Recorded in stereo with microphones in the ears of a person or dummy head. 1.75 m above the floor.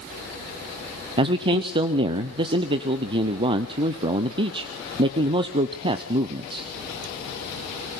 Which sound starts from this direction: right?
A man speaking, at 1.2 s.